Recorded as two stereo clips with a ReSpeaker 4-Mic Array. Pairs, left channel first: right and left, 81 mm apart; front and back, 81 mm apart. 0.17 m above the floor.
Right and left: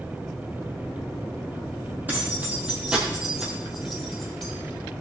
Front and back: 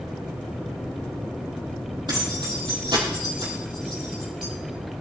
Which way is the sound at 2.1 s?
155° left.